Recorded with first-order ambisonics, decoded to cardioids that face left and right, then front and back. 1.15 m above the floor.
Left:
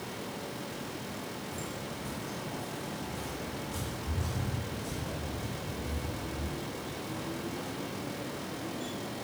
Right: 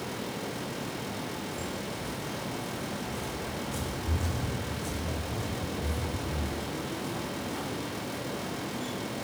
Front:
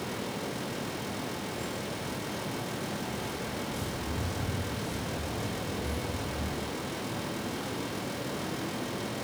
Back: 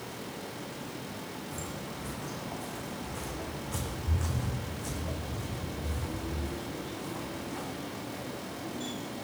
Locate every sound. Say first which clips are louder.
1.5 s footsteps: right 3 dB, front 4 dB; 170° left, 3.5 m; by 8.2 s 110° right, 3.5 m